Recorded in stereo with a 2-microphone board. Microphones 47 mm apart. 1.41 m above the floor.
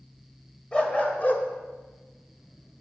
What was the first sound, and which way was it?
A dog barking, 25° left (ahead or behind).